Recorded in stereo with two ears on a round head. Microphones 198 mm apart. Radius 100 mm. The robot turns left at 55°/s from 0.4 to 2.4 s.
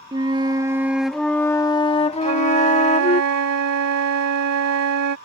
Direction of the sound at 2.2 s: 75° right (ahead or behind).